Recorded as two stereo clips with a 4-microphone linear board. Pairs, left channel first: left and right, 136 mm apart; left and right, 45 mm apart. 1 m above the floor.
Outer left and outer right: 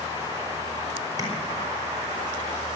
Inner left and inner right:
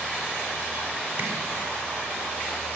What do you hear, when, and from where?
1.2 s tapping: 25° right (ahead or behind), 4.5 m